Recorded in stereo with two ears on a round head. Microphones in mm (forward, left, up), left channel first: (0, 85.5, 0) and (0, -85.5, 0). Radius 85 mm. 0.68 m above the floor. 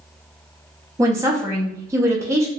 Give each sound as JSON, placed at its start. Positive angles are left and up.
{"t": 1.0, "sound": "a woman speaking", "side_deg": -15, "distance_m": 0.6}